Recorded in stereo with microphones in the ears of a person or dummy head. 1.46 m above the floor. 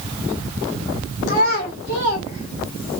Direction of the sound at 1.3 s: 40° left (ahead or behind).